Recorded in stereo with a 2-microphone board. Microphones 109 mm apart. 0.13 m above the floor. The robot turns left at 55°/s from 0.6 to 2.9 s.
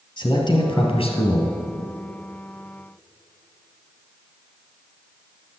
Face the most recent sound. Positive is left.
turn(degrees=5)